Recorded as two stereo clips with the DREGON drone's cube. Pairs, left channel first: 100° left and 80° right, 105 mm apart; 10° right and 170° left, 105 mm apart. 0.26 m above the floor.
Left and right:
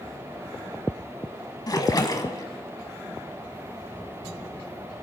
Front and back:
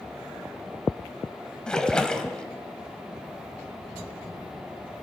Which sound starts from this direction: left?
A splash, at 1.7 s.